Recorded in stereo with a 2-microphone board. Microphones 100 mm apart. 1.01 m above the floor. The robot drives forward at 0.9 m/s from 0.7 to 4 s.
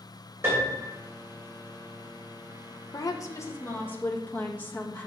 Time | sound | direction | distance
0.4 | a piano | 25° right (ahead or behind) | 3 m
2.9 | a woman speaking | 40° left (ahead or behind) | 0.6 m